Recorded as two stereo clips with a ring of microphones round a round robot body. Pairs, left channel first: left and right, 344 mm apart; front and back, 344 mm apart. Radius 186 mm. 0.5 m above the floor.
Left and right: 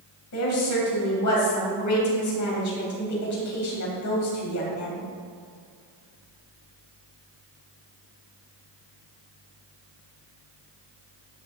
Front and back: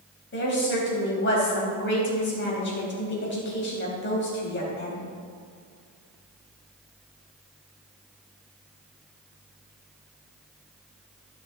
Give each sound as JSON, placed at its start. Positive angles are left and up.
{"t": 0.3, "sound": "a woman speaking", "azimuth_deg": 55, "distance_m": 3.5}